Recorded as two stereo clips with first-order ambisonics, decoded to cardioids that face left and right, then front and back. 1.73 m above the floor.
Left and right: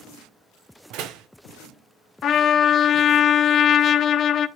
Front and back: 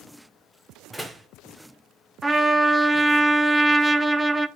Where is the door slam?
90° right, 0.9 m.